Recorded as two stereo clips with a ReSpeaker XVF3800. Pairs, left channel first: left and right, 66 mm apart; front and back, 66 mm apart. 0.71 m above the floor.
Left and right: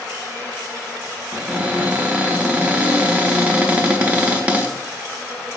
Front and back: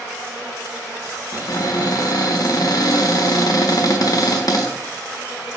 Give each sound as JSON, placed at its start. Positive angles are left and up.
{"t": 1.3, "sound": "a cupboard door", "azimuth_deg": -20, "distance_m": 0.6}